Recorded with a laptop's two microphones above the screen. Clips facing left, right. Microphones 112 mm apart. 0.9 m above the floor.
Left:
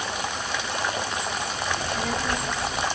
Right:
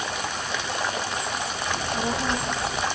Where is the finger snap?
I don't hear a finger snap.